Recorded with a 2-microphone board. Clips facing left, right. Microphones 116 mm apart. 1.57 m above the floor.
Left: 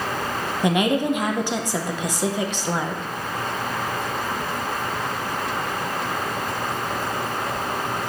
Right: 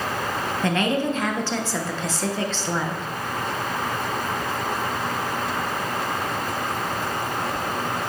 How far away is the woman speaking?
About 0.8 m.